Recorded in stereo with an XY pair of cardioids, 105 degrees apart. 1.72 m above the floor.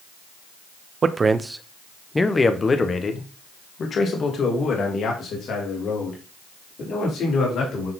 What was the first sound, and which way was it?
A man speaking, 40° right.